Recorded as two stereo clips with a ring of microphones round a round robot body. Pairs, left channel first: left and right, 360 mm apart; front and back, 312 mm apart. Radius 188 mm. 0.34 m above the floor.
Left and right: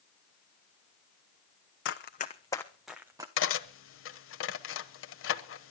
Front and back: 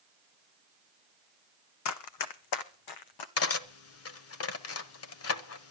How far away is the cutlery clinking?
About 1.1 m.